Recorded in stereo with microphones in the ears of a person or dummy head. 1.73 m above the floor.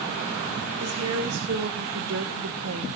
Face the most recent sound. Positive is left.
turn(degrees=-85)